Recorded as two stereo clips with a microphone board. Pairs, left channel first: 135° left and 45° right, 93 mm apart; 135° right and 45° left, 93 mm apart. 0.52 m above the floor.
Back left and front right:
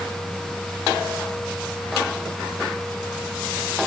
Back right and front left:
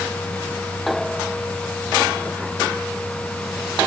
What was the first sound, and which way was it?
Only background noise.